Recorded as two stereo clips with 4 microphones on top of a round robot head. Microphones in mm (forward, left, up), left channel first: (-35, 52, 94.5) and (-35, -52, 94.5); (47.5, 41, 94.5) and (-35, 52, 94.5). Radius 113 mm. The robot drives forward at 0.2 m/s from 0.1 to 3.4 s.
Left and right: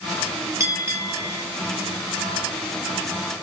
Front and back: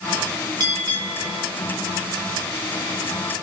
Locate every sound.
0.6 s a bell: 155° right, 2 m